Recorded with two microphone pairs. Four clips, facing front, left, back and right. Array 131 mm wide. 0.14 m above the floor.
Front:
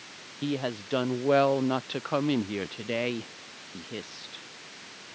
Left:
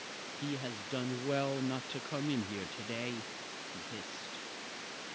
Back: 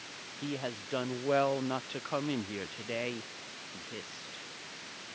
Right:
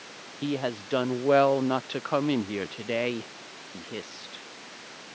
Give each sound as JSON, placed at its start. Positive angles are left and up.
{"t": 0.4, "sound": "a woman speaking", "azimuth_deg": -75}